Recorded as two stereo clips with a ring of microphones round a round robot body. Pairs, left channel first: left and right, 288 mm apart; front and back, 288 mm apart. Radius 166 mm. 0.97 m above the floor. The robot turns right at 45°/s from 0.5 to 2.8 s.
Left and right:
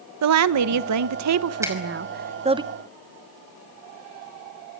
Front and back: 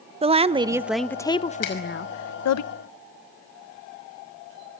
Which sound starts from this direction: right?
A woman speaking, at 0.2 s.